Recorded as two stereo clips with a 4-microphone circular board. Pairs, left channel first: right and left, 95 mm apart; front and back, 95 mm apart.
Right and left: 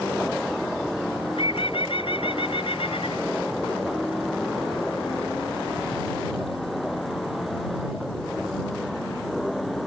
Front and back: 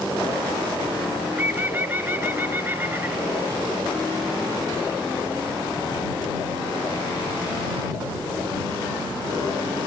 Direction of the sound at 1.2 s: 110° right.